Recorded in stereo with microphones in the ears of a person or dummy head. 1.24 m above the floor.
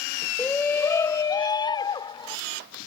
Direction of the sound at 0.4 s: 10° left (ahead or behind).